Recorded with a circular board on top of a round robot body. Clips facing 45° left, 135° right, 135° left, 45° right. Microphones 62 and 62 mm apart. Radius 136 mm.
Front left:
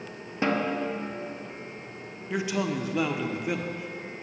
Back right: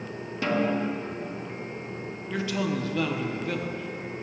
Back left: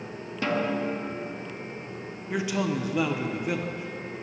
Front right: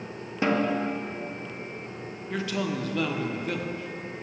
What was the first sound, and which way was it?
A snare drum, 5° left.